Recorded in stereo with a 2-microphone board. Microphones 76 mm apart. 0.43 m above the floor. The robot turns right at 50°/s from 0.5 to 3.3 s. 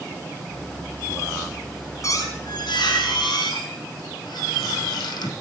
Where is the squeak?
40° left, 2.5 m; by 5.3 s 105° left, 2.5 m.